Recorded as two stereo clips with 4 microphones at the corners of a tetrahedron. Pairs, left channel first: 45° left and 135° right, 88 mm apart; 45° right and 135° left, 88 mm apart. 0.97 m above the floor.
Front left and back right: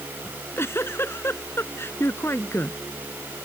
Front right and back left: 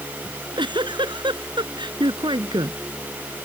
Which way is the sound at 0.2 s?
105° left.